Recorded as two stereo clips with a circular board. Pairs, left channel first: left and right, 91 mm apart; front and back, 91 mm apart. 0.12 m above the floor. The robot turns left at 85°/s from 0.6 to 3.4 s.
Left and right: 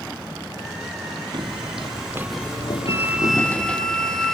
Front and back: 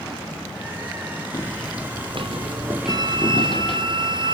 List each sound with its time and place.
1.3 s footsteps: 55° right, 1.5 m; by 3.9 s 10° left, 1.7 m
2.9 s a flute: 140° right, 1.4 m; by 4.3 s 175° left, 1.4 m